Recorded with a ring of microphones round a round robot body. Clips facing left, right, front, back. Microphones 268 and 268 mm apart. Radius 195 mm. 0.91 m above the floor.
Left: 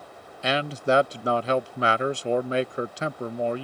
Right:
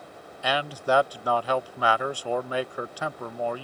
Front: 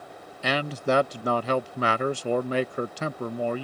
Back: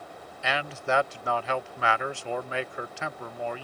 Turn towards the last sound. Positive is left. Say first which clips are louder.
# left 3 dB, front 5 dB
turn(degrees=30)